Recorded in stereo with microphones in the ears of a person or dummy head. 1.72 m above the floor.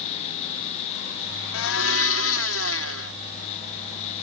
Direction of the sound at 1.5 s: 70° left (ahead or behind).